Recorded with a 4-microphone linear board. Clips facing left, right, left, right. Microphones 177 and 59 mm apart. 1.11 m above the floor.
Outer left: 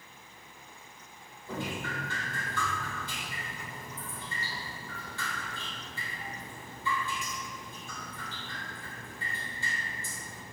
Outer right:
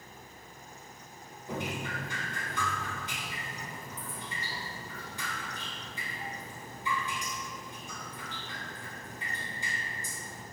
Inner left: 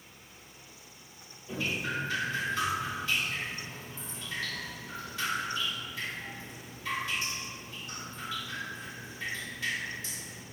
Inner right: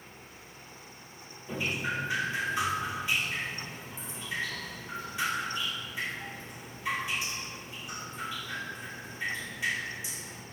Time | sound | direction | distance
1.5 | dripping | 15° right (ahead or behind) | 3 m